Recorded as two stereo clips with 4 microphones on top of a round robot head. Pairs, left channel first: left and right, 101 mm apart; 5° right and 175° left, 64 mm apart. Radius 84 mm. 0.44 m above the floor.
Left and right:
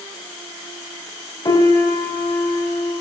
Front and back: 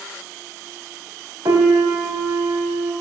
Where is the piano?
145° left, 0.8 m.